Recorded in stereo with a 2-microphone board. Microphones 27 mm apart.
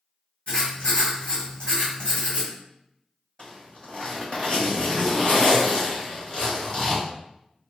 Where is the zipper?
30° left (ahead or behind), 1.3 m.